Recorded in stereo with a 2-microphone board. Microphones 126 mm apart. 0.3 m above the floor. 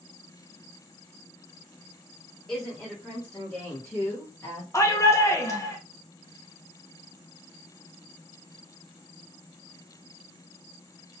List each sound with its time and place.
2.5 s a woman speaking: 5° right (ahead or behind), 1.9 m; by 4.6 s 20° left (ahead or behind), 1.5 m
4.7 s a shout: 25° left (ahead or behind), 0.9 m